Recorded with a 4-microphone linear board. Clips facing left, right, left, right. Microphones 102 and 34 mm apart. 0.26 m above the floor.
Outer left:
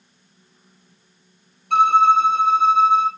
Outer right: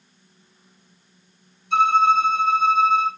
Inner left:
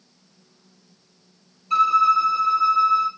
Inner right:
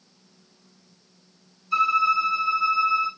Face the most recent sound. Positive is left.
turn(degrees=65)  # may be behind; listen again after turning